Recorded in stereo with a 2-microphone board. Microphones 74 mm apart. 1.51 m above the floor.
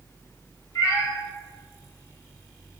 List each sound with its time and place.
0.8 s a cat meowing: 50° left (ahead or behind), 1.4 m